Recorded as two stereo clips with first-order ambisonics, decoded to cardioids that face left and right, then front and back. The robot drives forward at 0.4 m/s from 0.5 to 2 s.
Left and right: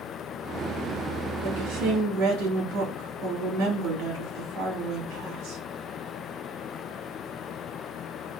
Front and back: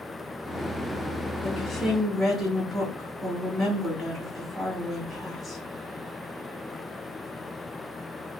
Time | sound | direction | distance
1.4 | a woman speaking | 90° right | 2.5 m